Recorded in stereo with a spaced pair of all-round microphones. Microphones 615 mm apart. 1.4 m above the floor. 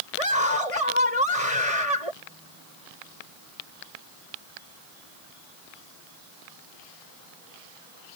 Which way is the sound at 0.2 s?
65° left (ahead or behind).